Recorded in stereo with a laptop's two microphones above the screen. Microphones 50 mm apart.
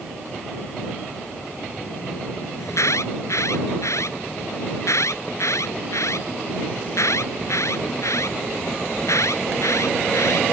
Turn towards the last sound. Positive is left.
turn(degrees=80)